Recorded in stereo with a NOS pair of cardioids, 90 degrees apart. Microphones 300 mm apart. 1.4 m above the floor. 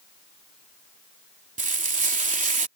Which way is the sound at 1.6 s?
25° right.